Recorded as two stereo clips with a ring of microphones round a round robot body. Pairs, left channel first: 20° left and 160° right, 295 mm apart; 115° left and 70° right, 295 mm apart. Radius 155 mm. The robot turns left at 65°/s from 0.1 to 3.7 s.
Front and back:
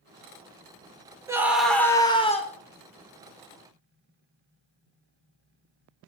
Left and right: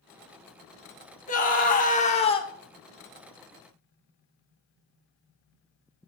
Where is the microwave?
No microwave in this recording.